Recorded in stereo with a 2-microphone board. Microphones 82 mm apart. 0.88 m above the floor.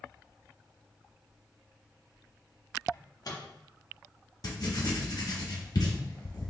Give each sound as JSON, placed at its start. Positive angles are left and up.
{"t": 2.9, "sound": "a microwave", "side_deg": 50, "distance_m": 0.7}
{"t": 4.4, "sound": "writing", "side_deg": 55, "distance_m": 0.7}